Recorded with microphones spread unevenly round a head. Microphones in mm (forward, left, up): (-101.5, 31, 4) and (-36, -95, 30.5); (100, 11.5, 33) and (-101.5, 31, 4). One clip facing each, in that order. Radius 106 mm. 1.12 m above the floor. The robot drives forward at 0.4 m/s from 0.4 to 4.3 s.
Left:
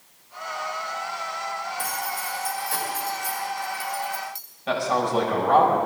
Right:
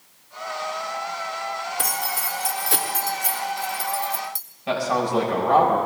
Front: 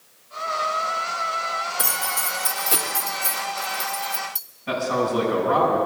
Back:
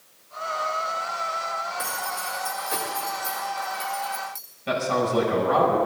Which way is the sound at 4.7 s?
145° right.